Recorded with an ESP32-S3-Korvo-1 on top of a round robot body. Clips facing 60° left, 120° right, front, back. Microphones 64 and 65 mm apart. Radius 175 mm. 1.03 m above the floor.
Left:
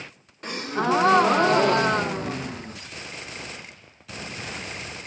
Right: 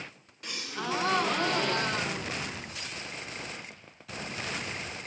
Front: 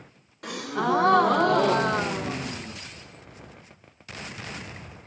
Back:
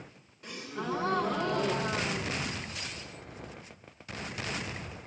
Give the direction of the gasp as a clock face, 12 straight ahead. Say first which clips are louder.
Left 10 dB, front 10 dB; 12 o'clock.